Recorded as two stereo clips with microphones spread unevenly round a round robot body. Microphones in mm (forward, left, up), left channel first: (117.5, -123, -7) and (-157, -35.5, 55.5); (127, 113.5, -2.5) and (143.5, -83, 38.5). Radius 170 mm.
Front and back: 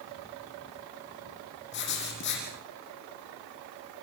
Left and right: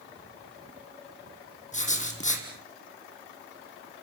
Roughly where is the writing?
Ahead left.